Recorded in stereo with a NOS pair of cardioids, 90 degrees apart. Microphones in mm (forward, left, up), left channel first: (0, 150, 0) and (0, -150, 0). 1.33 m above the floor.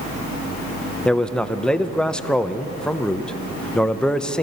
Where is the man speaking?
5° left, 0.7 m.